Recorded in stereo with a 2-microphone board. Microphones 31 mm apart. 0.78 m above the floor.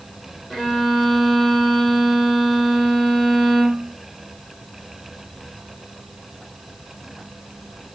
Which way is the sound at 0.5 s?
25° left (ahead or behind).